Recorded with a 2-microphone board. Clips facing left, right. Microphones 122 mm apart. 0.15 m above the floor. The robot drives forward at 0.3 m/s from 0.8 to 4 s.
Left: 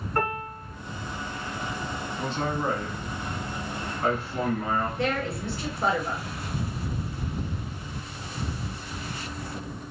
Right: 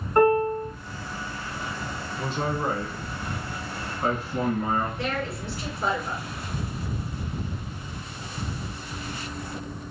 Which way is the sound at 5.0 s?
25° left (ahead or behind).